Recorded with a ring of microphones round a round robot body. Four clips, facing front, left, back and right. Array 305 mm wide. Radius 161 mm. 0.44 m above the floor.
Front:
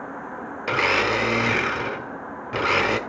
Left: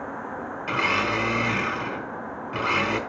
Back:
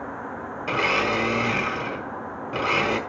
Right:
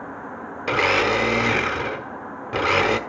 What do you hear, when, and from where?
0.7 s a blender: 65° right, 1.2 m